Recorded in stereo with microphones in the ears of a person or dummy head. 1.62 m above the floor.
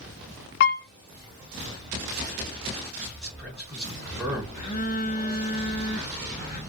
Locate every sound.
0.6 s a piano: 60° left (ahead or behind), 0.5 m
3.2 s a man speaking: centre (ahead or behind), 1.4 m
4.5 s a phone buzzing: 40° left (ahead or behind), 0.7 m